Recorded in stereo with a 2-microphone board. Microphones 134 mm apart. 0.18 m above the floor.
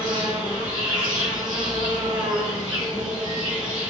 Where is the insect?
35° right (ahead or behind), 1.0 m.